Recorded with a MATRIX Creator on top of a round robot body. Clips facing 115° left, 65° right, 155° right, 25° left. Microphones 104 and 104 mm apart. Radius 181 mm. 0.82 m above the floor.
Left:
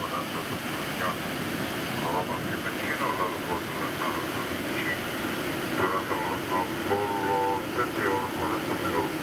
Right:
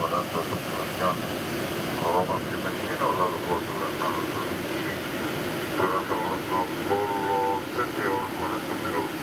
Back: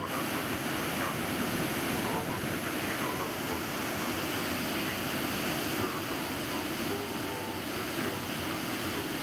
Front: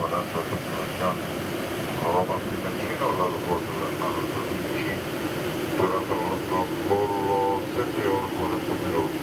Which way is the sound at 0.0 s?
15° right.